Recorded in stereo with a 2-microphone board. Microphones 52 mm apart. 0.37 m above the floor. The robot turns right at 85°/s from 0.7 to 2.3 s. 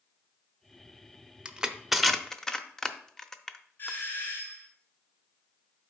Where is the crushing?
20° right (ahead or behind), 0.6 m; by 4.0 s 10° left (ahead or behind), 0.6 m.